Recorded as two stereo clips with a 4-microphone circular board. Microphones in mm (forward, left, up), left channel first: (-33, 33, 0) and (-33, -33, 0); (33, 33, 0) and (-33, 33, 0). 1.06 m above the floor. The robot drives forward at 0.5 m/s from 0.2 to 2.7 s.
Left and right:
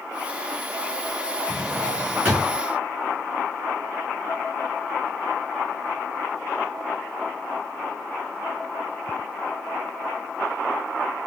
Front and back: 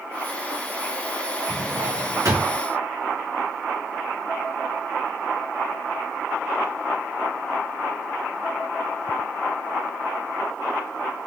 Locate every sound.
1.5 s a drawer: 155° right, 2 m; by 2.6 s 160° right, 2.5 m